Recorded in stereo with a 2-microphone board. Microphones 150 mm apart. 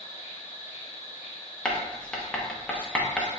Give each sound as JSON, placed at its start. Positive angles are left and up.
{"t": 0.0, "sound": "an insect", "side_deg": 50, "distance_m": 1.2}
{"t": 1.6, "sound": "writing", "side_deg": 5, "distance_m": 0.8}